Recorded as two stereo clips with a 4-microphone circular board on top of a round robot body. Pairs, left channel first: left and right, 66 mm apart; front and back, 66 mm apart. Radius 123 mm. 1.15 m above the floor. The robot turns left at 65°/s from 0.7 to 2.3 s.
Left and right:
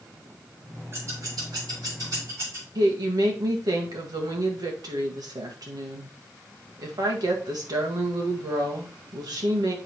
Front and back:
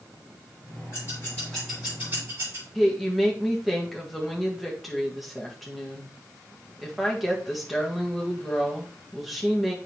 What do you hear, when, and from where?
0.9 s scissors: 40° right, 4.5 m; by 2.6 s 130° right, 4.5 m
2.8 s a woman speaking: 90° right, 1.8 m